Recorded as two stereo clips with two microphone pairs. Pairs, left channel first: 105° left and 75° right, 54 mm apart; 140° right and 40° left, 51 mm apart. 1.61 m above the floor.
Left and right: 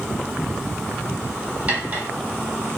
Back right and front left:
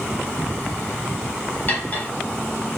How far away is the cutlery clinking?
About 1.0 m.